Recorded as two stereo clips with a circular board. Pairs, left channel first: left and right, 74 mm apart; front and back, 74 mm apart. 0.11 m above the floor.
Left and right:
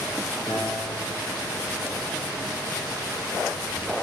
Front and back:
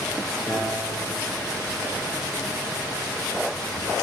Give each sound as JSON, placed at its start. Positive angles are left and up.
{"t": 0.5, "sound": "a piano", "azimuth_deg": 110, "distance_m": 1.7}